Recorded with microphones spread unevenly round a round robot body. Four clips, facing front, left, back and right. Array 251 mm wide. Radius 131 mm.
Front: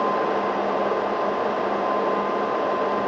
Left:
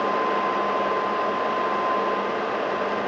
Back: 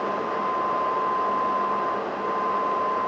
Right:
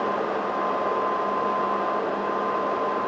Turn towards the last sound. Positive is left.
No sound to turn to.